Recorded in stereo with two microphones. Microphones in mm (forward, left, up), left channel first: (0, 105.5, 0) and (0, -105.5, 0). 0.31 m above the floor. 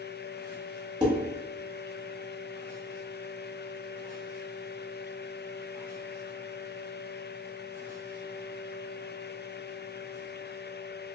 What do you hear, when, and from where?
1.0 s dishes clattering: 20° right (ahead or behind), 0.9 m